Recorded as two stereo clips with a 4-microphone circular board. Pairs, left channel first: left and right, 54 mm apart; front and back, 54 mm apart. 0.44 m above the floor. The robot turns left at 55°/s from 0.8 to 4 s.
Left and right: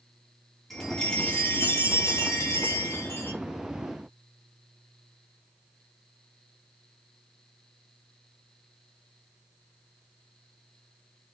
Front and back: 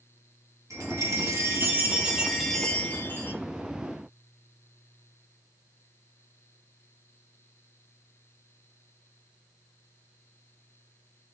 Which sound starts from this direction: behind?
A chime, at 0.7 s.